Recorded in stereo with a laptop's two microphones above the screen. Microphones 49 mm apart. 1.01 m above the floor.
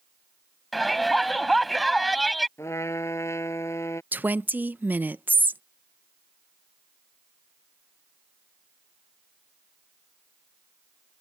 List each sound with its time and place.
0.7 s a shout: centre (ahead or behind)
2.6 s a trumpet: 75° left (ahead or behind)
4.1 s a woman speaking: 40° right (ahead or behind)